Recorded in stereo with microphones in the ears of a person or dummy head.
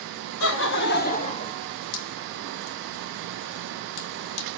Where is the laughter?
75° left (ahead or behind), 1.3 m; by 1.5 s 25° left (ahead or behind), 1.0 m.